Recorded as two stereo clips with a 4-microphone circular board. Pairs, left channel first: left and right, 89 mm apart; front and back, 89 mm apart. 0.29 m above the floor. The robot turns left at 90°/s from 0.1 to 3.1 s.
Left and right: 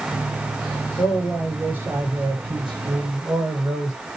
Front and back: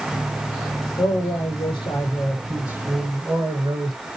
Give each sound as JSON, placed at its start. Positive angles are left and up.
{"t": 1.0, "sound": "a man speaking", "azimuth_deg": 50, "distance_m": 3.5}